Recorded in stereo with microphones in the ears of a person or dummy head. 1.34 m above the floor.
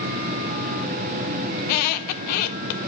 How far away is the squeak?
About 0.5 m.